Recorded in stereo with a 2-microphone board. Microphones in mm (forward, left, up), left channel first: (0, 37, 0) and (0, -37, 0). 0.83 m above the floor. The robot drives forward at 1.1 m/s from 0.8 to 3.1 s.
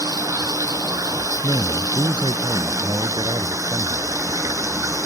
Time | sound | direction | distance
0.0 | running water | 50° right (ahead or behind) | ?
1.4 | a man speaking | 85° right | ?